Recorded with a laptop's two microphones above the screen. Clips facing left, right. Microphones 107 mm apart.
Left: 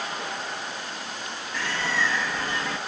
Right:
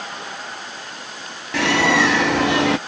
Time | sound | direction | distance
1.5 | a bird | 70° right (ahead or behind) | ?